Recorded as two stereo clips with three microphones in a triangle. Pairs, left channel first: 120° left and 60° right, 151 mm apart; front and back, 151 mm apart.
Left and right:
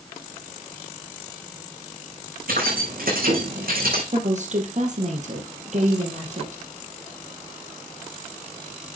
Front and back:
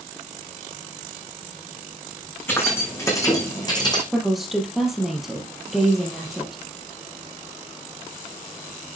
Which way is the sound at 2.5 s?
75° right.